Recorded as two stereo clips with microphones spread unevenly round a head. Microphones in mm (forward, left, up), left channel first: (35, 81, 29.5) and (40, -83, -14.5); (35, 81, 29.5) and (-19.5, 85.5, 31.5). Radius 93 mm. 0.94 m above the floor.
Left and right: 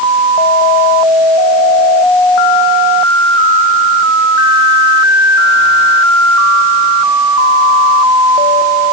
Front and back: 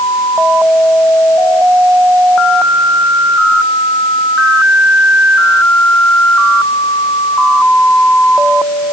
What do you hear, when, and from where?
Only background noise.